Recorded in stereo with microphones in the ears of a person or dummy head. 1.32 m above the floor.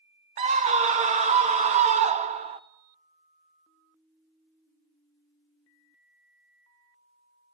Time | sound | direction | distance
0.4 | a scream | 35° right (ahead or behind) | 0.5 m